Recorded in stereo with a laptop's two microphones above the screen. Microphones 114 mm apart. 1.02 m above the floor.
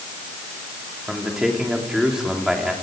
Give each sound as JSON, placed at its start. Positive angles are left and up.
{"t": 1.1, "sound": "a man speaking", "side_deg": -5, "distance_m": 3.0}